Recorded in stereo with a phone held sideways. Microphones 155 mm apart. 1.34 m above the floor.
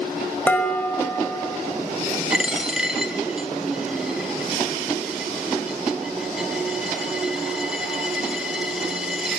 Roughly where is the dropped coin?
Centre.